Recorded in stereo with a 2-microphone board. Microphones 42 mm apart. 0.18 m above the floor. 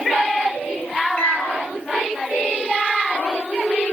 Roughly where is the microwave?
Centre.